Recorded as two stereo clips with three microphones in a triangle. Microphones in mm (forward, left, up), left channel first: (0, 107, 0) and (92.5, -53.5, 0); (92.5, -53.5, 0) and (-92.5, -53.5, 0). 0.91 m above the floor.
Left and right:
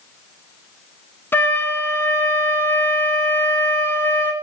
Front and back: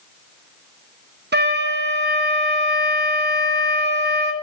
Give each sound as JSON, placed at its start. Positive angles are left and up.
{"t": 1.3, "sound": "a flute", "azimuth_deg": -165, "distance_m": 1.0}